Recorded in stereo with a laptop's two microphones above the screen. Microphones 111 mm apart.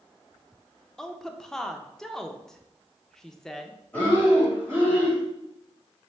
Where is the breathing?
15° left (ahead or behind), 2.0 m.